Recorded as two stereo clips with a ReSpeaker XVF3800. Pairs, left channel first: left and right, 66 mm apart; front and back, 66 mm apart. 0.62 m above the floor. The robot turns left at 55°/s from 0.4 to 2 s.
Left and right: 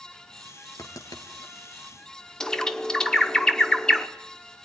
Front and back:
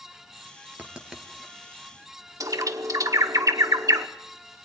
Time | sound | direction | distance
0.8 | writing | 115° left | 2.5 m
2.4 | a bird | 170° left | 1.1 m